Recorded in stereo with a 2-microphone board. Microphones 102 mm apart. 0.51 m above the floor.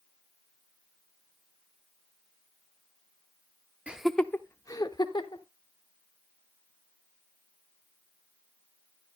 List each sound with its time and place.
3.9 s laughter: 10° right (ahead or behind), 0.7 m; by 5.4 s 50° left (ahead or behind), 1.3 m